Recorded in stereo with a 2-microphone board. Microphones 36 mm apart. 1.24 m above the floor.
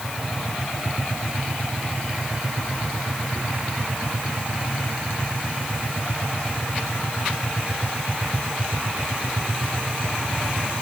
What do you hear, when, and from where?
Only background noise.